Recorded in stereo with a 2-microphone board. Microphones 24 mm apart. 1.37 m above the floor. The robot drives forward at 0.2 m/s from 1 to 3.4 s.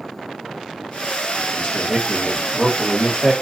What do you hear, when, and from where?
1.6 s a man speaking: 35° left (ahead or behind), 1.3 m; by 3.3 s 25° left (ahead or behind), 1.6 m